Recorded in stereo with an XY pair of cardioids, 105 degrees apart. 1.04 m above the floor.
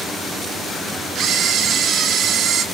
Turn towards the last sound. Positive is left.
turn(degrees=-65)